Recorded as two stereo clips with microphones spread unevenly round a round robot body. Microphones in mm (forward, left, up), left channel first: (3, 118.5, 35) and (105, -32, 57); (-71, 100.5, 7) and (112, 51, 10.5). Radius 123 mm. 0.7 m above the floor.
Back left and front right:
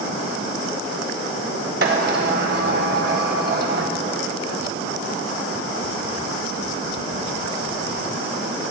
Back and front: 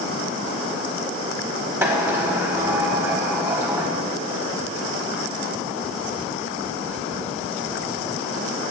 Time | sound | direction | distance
1.8 | a sliding door | 95° right | 0.7 m